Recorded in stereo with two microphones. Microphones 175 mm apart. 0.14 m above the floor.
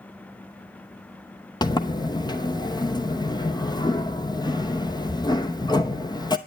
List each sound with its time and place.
1.6 s a sliding door: 25° left (ahead or behind), 0.8 m